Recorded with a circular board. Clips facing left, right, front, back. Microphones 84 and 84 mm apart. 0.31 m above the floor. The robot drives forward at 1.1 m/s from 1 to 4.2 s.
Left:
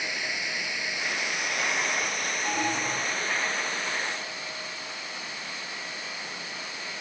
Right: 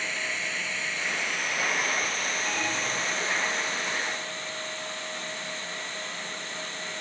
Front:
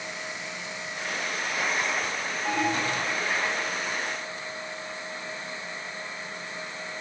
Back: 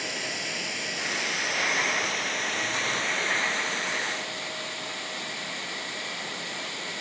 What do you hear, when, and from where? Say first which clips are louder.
0.0 s running water: even, back 2 dB; 170° left; by 7.0 s 175° left
2.5 s an alarm: left 5 dB, front 8 dB; 25° left